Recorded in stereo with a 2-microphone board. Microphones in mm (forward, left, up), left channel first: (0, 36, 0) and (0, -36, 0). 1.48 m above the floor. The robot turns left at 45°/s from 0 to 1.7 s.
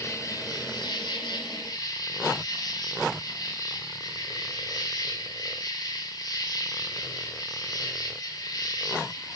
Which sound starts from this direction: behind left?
An insect, at 0.0 s.